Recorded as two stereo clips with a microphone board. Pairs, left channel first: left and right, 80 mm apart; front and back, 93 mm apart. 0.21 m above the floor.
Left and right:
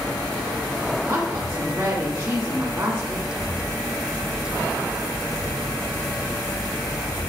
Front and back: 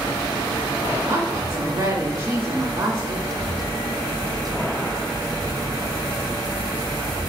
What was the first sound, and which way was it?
A woman speaking, 140° right.